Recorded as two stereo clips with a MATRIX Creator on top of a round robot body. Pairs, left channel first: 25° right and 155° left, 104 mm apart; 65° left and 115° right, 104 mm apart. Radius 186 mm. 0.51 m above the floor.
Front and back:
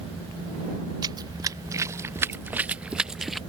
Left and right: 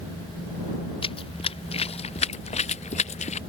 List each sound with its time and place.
1.0 s running footsteps: 105° left; by 3.4 s 70° left